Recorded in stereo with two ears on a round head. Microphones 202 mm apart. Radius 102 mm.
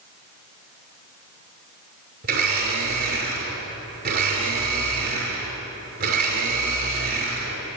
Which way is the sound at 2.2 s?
45° right (ahead or behind).